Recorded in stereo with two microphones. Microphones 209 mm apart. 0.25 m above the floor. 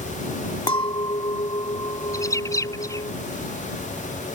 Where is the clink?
20° left (ahead or behind).